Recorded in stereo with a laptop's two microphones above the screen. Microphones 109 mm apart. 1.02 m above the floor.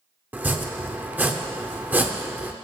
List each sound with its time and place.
0.3 s chopping: 15° right (ahead or behind), 0.7 m